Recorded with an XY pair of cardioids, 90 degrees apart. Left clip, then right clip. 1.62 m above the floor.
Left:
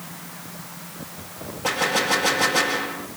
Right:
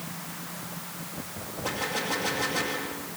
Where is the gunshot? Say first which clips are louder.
Left 9 dB; 65° left, 2.5 m.